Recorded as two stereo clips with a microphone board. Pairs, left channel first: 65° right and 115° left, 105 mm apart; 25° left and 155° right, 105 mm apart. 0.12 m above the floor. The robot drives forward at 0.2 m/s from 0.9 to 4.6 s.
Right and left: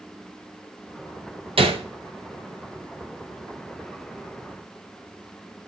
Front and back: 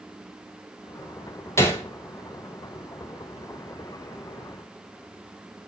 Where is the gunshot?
85° left, 1.0 m; by 1.9 s 90° left, 1.0 m.